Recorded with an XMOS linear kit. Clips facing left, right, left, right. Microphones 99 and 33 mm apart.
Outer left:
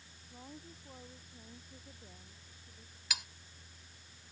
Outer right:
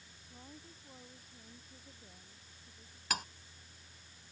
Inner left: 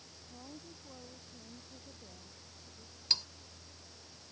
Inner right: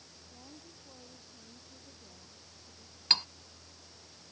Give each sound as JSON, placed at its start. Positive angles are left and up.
{"t": 0.3, "sound": "a woman speaking", "side_deg": 15}
{"t": 3.1, "sound": "cutlery clinking", "side_deg": -45}